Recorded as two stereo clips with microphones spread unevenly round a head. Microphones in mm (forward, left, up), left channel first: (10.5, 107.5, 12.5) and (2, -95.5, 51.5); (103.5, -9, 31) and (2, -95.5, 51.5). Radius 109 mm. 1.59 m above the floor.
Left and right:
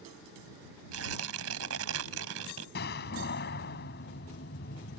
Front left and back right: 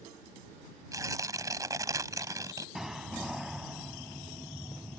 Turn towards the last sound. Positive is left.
turn(degrees=135)